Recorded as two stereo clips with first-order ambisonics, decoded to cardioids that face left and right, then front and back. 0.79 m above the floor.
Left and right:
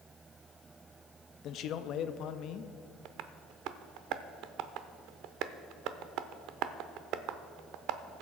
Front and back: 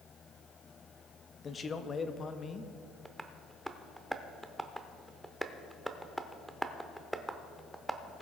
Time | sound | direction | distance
1.4 | a man speaking | 60° left | 0.6 m
3.0 | tapping | 90° right | 0.5 m